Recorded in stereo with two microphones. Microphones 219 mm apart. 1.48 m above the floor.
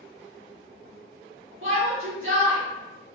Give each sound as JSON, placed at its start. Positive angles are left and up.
{"t": 1.6, "sound": "a shout", "side_deg": -65, "distance_m": 1.9}